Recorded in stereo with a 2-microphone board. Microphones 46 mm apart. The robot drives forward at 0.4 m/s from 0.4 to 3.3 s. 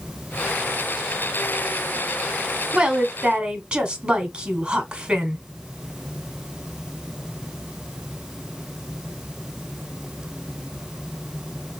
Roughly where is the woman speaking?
Right.